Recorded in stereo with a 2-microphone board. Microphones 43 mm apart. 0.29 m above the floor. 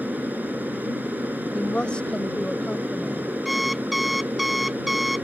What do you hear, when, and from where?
0.0 s an aircraft: 45° right (ahead or behind)
1.5 s a woman speaking: 25° left (ahead or behind)
3.5 s an alarm clock: 5° right (ahead or behind)